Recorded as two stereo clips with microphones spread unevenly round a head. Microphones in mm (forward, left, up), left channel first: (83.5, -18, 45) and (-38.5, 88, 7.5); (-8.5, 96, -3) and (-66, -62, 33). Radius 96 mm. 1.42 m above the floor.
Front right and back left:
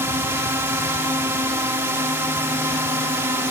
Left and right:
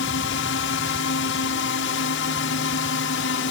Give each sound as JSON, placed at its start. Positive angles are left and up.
{"t": 0.0, "sound": "a drone", "azimuth_deg": 65}